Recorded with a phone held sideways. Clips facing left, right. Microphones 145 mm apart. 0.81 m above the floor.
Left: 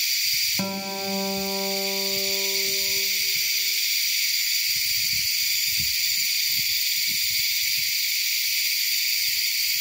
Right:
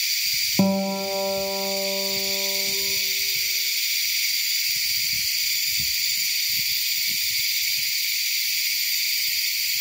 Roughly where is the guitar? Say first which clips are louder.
Right 8 dB; right.